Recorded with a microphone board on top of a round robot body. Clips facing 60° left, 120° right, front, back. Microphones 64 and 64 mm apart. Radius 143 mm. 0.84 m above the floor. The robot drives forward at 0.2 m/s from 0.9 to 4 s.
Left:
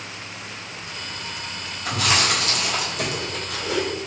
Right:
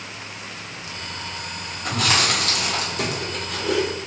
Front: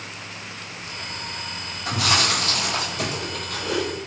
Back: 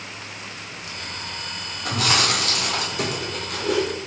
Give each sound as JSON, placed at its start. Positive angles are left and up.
{"t": 1.9, "sound": "chewing", "azimuth_deg": -160, "distance_m": 2.5}